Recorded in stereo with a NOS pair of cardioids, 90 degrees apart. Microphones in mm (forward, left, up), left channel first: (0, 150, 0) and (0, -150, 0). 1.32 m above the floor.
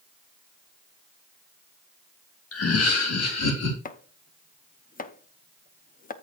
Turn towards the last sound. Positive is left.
turn(degrees=30)